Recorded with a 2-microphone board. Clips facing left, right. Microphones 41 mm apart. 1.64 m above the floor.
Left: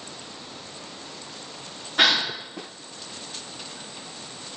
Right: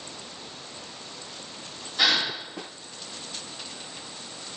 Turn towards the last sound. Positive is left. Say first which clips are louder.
# left 3 dB
turn(degrees=55)  # may be behind; listen again after turning